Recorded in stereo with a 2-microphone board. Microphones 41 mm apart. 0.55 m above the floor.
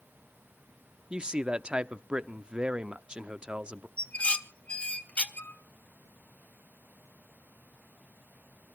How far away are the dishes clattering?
About 1.2 m.